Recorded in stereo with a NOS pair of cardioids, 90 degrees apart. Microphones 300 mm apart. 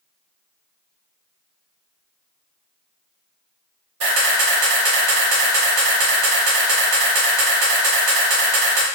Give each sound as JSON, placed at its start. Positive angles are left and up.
{"t": 4.0, "sound": "a camera shutter", "azimuth_deg": -55, "distance_m": 1.4}